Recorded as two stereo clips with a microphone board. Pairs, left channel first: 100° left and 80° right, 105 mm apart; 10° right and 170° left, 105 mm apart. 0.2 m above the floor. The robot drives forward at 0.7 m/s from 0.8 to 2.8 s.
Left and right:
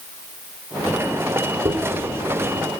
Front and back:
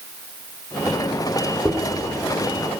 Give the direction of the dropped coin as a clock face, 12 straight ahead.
4 o'clock.